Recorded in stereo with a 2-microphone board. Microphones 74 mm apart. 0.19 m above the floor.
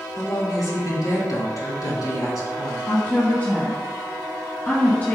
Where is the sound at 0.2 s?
55° left (ahead or behind), 2.5 m.